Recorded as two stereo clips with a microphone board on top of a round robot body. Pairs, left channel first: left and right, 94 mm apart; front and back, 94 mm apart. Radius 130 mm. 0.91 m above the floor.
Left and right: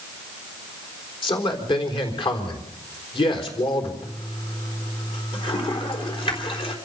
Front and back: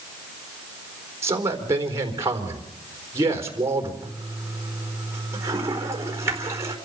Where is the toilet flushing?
120° left, 4 m.